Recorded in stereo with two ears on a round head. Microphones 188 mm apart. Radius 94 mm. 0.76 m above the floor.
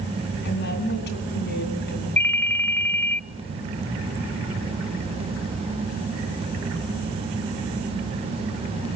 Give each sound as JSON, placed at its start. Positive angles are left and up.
{"t": 0.5, "sound": "a woman speaking", "side_deg": 55, "distance_m": 8.0}
{"t": 2.2, "sound": "a ringtone", "side_deg": 10, "distance_m": 0.7}